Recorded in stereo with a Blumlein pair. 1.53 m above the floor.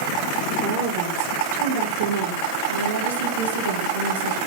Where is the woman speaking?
50° right, 5.5 m; by 4.4 s 70° right, 3.5 m.